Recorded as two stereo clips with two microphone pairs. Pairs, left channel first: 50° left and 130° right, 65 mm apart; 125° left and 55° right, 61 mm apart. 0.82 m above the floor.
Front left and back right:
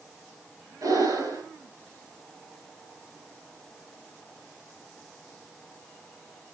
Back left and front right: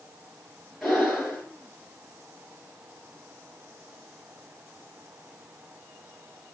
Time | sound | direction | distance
0.8 | breathing | 140° right | 6.5 m